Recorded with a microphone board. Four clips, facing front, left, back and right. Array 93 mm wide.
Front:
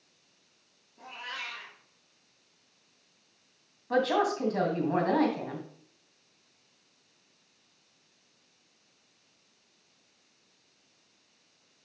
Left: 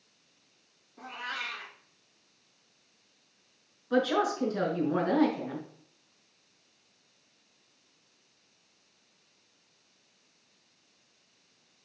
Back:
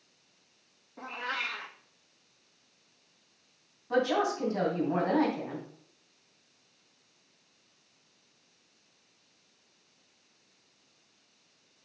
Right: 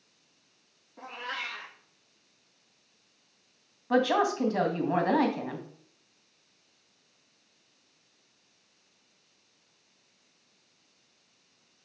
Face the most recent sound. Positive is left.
turn(degrees=-75)